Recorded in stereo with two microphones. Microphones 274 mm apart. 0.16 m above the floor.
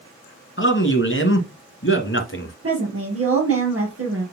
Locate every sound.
0.6 s a man speaking: 45° left (ahead or behind), 1.4 m
2.6 s a woman speaking: 55° right (ahead or behind), 3.5 m